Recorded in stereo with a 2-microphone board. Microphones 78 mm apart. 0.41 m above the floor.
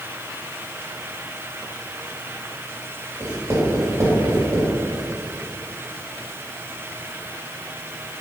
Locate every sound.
3.2 s writing: 40° right (ahead or behind), 2 m